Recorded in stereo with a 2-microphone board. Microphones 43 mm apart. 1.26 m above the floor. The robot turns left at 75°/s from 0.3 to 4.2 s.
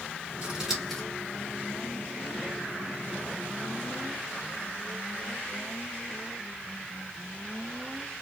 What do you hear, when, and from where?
0.4 s scissors: 35° right (ahead or behind), 2.5 m; by 1.0 s 10° left (ahead or behind), 2.5 m